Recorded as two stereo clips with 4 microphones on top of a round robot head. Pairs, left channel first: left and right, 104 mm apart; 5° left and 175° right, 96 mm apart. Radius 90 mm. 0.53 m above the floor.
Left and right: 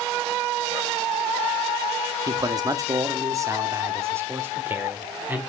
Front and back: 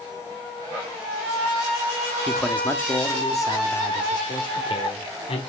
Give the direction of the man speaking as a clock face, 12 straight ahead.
3 o'clock.